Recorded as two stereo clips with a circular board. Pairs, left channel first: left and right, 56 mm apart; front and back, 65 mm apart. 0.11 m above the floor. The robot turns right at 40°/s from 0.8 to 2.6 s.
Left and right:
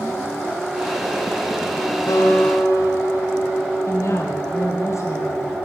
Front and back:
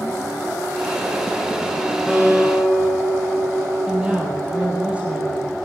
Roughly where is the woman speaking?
Left.